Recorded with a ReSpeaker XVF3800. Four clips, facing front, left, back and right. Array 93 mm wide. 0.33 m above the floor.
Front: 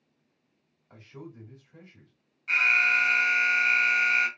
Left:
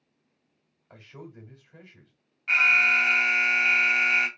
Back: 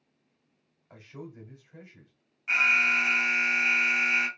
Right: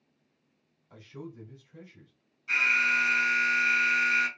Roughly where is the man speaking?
Left.